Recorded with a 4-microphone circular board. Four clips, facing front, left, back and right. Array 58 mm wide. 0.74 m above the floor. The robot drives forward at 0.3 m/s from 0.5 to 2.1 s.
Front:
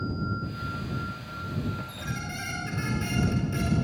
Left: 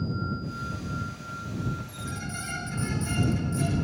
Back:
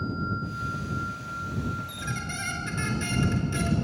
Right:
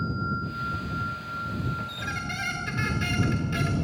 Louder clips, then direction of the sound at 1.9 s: Right 4 dB, back 2 dB; 100° right.